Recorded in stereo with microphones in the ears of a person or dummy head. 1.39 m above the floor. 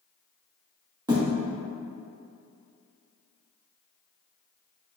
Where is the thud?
15° right (ahead or behind), 0.8 m.